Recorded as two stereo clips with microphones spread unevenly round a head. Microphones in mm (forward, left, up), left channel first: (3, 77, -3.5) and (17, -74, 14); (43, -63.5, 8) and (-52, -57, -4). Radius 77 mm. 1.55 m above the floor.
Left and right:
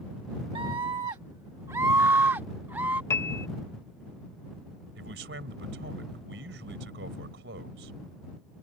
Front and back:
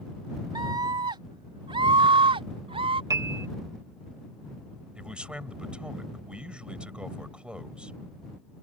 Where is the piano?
165° left.